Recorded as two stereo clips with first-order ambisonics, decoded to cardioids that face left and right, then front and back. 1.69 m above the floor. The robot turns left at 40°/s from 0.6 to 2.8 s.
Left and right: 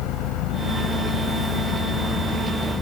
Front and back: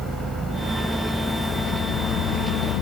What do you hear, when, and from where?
0.0 s an engine running: 105° left; by 2.8 s 15° left